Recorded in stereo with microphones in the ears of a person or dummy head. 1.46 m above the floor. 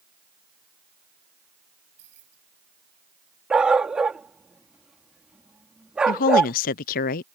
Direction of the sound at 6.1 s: 40° left (ahead or behind).